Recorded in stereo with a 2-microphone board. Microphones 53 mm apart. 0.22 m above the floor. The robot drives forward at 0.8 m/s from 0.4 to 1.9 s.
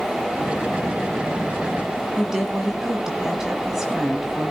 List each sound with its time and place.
2.2 s a woman speaking: 10° right (ahead or behind), 1.4 m